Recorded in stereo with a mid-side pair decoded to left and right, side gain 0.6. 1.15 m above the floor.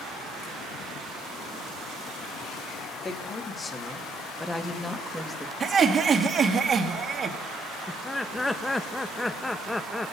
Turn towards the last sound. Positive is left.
turn(degrees=10)